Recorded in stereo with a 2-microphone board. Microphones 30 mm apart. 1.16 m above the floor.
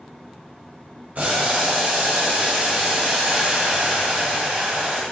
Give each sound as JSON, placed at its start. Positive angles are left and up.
{"t": 1.1, "sound": "boiling", "side_deg": -60, "distance_m": 1.1}